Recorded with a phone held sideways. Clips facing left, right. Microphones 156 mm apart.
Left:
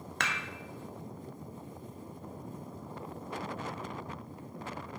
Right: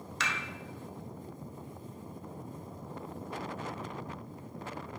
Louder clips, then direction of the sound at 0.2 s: Left 1 dB; 55° left (ahead or behind).